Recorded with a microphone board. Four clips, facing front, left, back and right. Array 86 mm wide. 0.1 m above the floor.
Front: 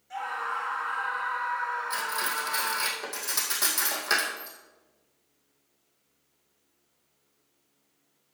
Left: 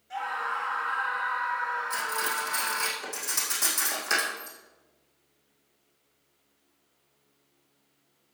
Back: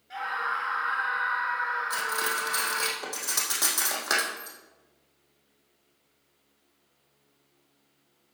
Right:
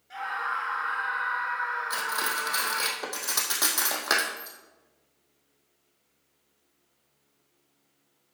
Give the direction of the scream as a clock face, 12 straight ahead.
5 o'clock.